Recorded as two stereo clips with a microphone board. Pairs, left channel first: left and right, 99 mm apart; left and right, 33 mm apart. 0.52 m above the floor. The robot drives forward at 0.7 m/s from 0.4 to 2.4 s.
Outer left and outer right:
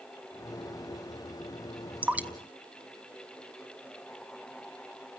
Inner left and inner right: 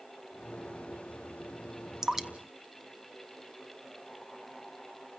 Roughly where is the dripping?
Centre.